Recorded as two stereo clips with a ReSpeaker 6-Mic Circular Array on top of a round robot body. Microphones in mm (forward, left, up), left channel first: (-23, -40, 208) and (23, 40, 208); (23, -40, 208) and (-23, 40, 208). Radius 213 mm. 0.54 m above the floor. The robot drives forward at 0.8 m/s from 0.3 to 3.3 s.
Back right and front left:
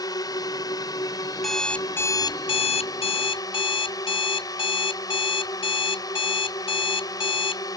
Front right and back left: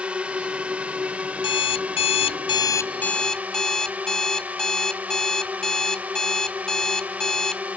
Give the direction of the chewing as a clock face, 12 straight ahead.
I don't hear chewing.